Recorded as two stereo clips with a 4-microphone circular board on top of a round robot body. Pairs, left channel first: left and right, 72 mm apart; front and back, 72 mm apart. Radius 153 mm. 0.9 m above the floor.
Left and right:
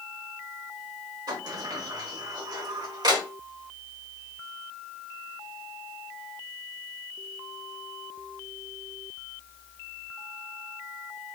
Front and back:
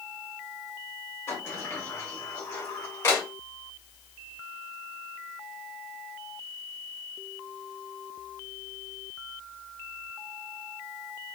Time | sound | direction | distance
1.3 | a sliding door | 60° right | 1.2 m